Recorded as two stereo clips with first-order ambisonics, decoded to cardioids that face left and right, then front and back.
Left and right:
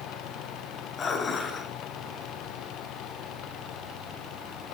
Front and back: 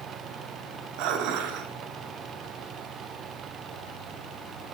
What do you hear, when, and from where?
1.0 s dishes clattering: 155° left, 0.7 m